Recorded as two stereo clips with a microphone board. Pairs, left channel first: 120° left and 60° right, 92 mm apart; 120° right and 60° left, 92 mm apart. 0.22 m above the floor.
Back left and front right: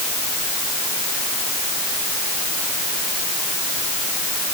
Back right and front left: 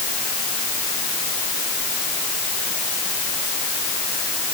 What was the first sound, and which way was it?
Only background noise.